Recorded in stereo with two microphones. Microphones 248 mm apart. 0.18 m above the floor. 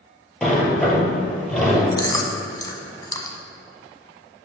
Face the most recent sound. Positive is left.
turn(degrees=15)  # may be behind; listen again after turning